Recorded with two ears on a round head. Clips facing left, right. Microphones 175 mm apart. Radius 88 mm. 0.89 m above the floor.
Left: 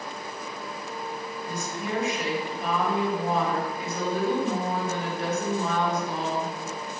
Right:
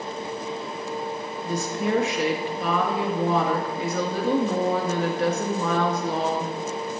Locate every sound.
1.4 s a woman speaking: 55° right (ahead or behind), 1.8 m